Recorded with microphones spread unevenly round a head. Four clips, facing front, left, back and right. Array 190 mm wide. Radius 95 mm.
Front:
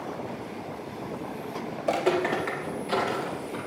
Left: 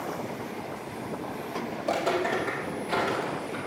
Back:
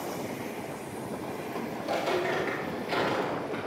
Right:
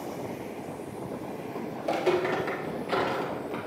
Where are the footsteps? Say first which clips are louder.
Right 1 dB, front 5 dB; 15° left, 2.5 m; by 3.6 s 110° right, 2.5 m.